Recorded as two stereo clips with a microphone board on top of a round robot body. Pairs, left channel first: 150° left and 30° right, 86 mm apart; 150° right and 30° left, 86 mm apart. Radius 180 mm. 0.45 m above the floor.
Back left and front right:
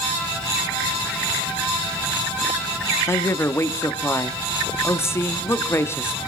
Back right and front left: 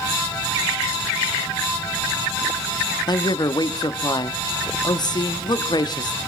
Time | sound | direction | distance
3.1 | a man speaking | 155° right | 1.2 m